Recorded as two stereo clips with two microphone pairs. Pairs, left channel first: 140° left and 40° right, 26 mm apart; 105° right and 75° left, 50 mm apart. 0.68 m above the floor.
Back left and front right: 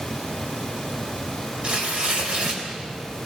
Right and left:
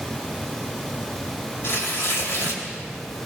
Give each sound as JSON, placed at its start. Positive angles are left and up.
{"t": 1.6, "sound": "tearing paper", "azimuth_deg": -75, "distance_m": 3.5}